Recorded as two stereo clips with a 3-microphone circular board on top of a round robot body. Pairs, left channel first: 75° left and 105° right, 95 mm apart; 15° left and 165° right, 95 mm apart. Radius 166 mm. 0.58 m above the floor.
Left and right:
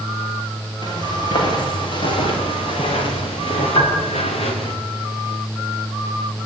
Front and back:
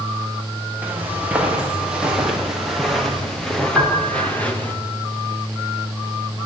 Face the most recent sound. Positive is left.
turn(degrees=120)